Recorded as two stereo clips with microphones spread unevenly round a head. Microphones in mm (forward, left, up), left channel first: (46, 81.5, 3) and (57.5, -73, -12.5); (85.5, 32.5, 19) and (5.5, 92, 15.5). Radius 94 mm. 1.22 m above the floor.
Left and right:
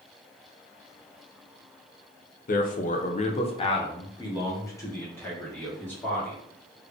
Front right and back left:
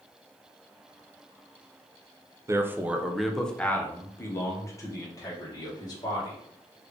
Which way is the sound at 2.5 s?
95° left.